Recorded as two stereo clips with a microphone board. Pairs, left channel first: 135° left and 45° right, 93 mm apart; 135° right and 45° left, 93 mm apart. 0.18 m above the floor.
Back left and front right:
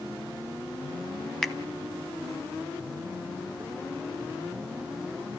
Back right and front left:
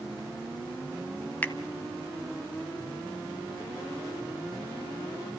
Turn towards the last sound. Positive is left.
turn(degrees=-145)